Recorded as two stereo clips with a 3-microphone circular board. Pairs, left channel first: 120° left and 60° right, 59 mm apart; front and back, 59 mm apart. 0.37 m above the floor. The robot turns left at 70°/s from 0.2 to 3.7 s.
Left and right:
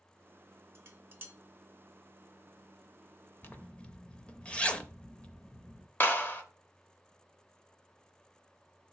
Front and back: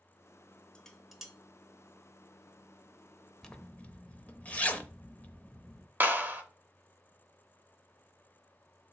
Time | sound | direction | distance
0.8 | dishes clattering | 70° right | 0.7 m
3.4 | a zipper | 75° left | 0.5 m
6.0 | a clap | 145° left | 0.7 m